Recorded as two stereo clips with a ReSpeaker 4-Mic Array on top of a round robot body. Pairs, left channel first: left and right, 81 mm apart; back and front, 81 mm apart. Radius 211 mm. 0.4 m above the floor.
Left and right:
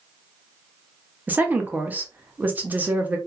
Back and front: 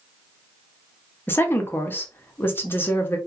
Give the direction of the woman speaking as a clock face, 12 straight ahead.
5 o'clock.